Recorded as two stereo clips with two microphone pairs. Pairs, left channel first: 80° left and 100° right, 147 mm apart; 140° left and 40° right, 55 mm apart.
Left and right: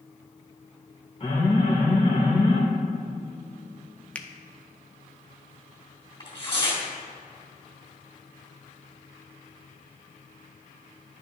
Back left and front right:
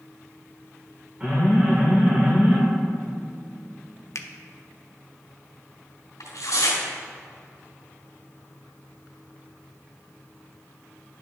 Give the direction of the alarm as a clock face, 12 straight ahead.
11 o'clock.